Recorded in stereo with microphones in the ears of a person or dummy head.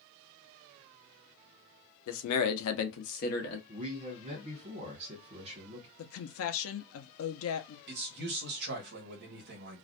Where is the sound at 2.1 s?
75° left (ahead or behind), 0.7 m; by 3.6 s 35° left (ahead or behind), 1.0 m.